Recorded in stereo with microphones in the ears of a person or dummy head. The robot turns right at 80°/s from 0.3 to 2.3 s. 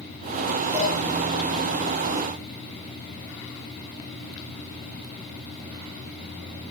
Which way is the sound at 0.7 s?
15° right (ahead or behind).